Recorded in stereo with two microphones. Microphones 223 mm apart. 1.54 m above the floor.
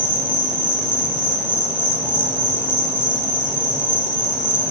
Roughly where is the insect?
Centre.